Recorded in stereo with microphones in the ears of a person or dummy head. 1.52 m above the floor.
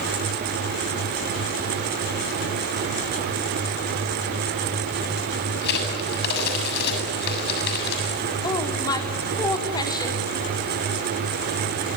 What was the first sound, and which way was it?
A crack, 60° left (ahead or behind).